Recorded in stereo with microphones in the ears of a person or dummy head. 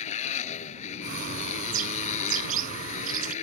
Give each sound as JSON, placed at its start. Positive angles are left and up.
{"t": 0.0, "sound": "a motorcycle", "side_deg": 45}
{"t": 1.0, "sound": "a bird", "side_deg": -50}